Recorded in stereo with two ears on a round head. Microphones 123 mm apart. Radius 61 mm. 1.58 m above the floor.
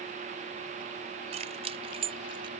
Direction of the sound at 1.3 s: 50° right (ahead or behind).